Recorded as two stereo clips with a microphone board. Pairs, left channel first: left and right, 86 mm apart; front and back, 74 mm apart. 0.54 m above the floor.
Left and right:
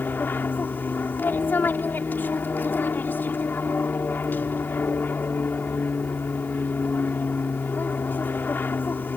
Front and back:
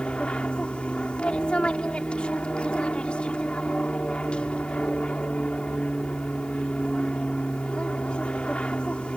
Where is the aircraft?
60° left.